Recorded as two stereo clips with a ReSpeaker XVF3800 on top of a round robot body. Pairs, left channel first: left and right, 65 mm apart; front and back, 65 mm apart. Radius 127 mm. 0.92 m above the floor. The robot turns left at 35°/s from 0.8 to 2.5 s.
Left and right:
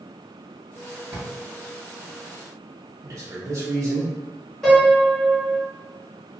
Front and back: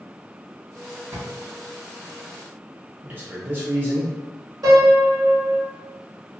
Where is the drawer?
140° right, 1.9 m; by 1.3 s 145° right, 1.9 m.